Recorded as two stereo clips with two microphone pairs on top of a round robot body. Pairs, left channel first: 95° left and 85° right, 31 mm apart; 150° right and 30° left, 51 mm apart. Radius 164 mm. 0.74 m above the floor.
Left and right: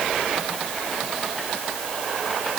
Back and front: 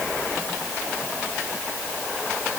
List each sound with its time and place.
Only background noise.